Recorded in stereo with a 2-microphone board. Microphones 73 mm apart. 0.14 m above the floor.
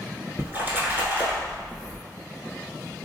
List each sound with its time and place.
0.4 s a splash: 30° right (ahead or behind), 0.9 m